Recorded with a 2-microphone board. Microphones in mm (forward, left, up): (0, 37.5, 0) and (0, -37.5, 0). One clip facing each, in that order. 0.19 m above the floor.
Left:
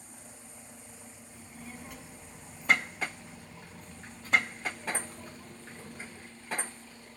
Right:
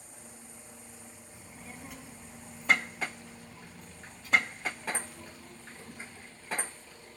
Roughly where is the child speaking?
Centre.